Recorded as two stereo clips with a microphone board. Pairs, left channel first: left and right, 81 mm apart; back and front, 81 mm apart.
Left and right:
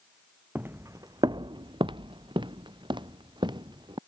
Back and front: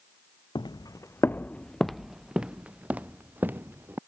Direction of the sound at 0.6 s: 160° right.